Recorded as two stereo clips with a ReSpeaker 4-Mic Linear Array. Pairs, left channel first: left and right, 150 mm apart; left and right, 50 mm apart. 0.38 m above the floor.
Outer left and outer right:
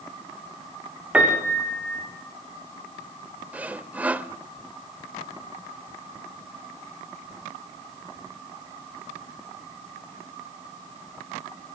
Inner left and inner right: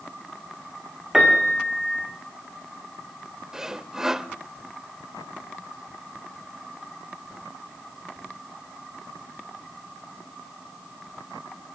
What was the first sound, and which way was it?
A piano, 10° right (ahead or behind).